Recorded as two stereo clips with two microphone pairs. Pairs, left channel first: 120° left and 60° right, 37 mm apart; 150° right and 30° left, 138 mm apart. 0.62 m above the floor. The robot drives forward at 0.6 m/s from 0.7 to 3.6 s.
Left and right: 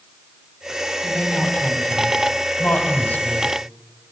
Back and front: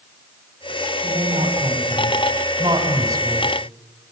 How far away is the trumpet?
I don't hear a trumpet.